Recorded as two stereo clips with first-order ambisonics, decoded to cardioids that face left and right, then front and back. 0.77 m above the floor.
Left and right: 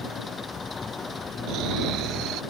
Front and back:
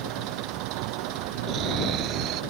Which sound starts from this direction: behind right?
Snoring, at 1.5 s.